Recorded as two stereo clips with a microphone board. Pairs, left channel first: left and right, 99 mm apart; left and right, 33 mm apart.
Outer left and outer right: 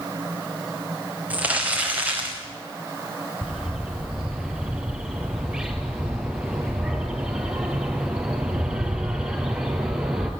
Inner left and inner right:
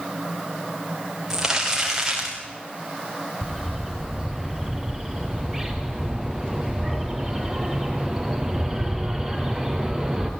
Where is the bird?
10° right (ahead or behind), 3 m.